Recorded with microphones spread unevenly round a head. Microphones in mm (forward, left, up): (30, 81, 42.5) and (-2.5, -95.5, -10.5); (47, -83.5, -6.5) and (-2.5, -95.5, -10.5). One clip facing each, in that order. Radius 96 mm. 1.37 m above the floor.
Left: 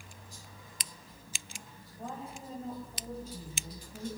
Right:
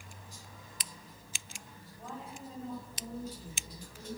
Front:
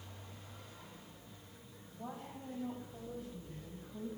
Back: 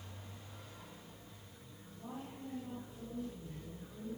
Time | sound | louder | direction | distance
2.0 | a woman speaking | left 3 dB, even | 25° left | 9.5 m